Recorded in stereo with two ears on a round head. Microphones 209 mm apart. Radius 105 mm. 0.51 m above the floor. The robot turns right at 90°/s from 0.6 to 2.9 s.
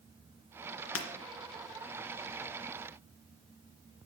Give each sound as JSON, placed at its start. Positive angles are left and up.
{"t": 0.9, "sound": "breaking glass", "side_deg": 70, "distance_m": 2.0}